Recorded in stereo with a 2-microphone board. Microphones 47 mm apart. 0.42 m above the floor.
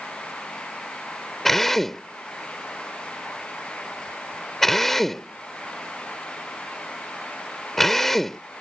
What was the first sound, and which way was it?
A drill, 5° left (ahead or behind).